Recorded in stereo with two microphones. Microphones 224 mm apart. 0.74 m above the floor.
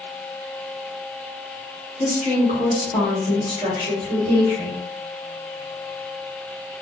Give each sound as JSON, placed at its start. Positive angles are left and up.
{"t": 2.0, "sound": "a woman speaking", "side_deg": 40, "distance_m": 1.1}